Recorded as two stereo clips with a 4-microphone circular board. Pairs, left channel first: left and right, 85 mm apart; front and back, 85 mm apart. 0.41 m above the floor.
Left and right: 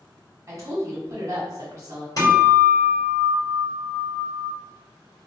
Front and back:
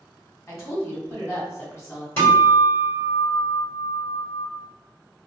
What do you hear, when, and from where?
0.5 s a woman speaking: 50° right, 1.1 m
2.2 s a guitar: 55° left, 2.0 m